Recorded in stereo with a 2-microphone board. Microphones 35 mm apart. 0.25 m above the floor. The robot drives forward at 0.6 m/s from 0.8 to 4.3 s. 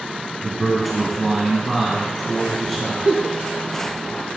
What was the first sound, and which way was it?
A man speaking, centre (ahead or behind).